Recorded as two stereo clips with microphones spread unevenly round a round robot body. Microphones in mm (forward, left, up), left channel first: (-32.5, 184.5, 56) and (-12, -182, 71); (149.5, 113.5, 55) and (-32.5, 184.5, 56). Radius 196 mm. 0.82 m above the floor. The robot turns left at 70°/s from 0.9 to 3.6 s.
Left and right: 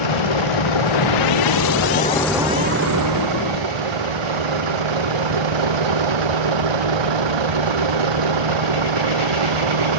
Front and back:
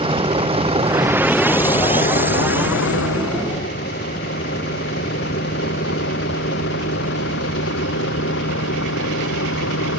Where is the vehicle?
100° left; by 10.0 s 70° right.